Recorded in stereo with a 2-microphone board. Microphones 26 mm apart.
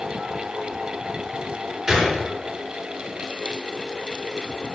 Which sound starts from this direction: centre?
A gunshot, at 1.9 s.